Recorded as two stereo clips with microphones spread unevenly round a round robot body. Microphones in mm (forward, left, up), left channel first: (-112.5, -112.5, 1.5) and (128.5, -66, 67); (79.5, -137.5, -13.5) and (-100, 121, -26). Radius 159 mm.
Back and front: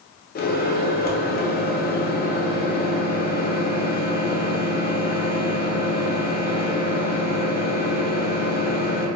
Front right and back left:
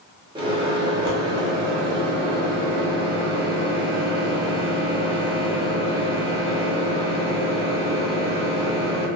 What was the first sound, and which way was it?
A microwave, 165° right.